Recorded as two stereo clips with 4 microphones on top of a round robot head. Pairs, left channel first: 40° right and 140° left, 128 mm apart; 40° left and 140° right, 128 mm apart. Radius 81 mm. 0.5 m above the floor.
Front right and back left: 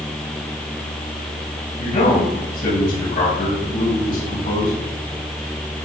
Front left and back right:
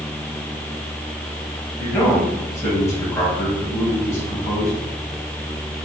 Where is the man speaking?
30° right, 3 m.